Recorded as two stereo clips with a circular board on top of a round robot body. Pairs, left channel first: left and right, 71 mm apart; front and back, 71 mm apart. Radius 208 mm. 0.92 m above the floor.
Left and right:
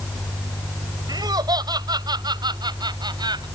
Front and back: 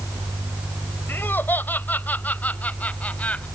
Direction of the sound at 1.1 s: 60° right.